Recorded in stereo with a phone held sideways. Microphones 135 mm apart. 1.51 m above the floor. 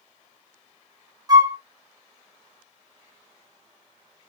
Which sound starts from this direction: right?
A flute, at 1.3 s.